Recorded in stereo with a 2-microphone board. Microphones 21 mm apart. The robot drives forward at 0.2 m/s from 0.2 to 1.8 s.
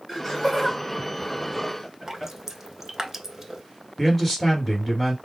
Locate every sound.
0.1 s laughter: 15° left (ahead or behind), 1.9 m
2.1 s dripping: 20° right (ahead or behind), 0.5 m
4.0 s a man speaking: 20° left (ahead or behind), 1.9 m